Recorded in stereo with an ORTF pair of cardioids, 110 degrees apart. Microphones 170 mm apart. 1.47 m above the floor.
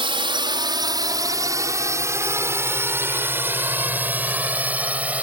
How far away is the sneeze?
No sneeze in this recording.